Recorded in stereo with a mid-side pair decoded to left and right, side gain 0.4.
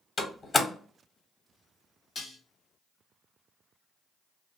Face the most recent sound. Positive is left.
turn(degrees=45)